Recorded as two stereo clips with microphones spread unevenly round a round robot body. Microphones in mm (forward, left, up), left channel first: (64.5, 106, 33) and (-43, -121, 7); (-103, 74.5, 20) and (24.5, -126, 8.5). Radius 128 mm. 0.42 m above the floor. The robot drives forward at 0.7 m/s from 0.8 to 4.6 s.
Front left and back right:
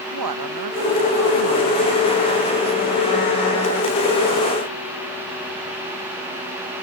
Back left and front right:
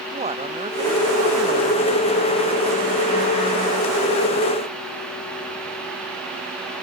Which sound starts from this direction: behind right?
A woman speaking, at 0.1 s.